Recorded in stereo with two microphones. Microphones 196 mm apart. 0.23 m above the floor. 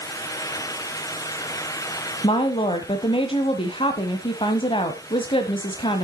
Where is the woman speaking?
25° left (ahead or behind), 1.1 m.